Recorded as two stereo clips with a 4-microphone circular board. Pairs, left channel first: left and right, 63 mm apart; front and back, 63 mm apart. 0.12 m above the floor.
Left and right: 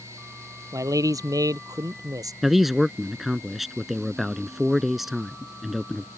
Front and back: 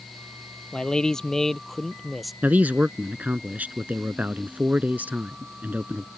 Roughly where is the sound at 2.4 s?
Behind.